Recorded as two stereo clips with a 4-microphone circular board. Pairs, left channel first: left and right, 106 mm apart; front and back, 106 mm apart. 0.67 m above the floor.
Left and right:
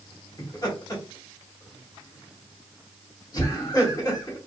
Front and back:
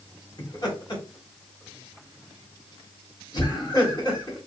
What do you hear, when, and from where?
0.4 s laughter: 40° left, 1.7 m